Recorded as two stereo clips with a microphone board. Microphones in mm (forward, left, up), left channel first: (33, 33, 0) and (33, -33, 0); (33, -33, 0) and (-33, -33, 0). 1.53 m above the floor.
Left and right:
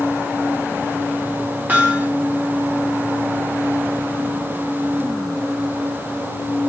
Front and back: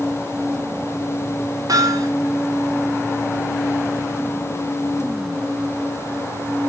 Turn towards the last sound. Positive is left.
turn(degrees=-155)